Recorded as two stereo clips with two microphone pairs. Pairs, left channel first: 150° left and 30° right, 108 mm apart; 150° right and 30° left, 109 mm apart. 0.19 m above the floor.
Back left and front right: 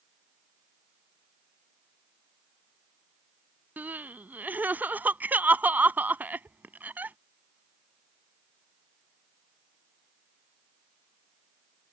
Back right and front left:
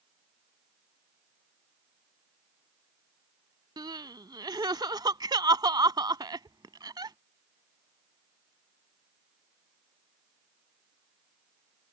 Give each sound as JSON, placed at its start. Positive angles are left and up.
{"t": 3.8, "sound": "crying", "azimuth_deg": 30}